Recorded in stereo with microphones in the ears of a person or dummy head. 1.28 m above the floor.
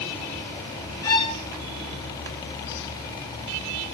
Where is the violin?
20° left (ahead or behind), 1.3 m.